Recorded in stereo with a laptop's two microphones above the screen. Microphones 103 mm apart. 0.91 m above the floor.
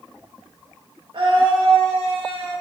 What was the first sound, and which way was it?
A scream, 55° right (ahead or behind).